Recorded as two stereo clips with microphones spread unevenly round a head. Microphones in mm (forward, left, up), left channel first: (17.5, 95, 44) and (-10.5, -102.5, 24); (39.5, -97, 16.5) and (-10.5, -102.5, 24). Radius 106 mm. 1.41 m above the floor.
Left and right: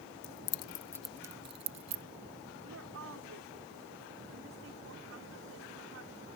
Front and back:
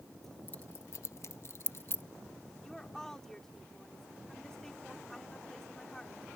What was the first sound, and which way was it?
Keys jangling, 100° left.